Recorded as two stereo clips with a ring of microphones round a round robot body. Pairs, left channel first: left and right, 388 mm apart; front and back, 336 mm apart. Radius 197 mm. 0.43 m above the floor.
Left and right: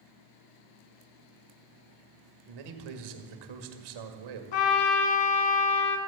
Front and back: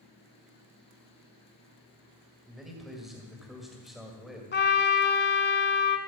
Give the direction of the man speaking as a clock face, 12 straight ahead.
3 o'clock.